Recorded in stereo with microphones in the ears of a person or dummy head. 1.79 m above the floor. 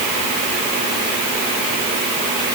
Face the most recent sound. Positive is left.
No sound to turn to.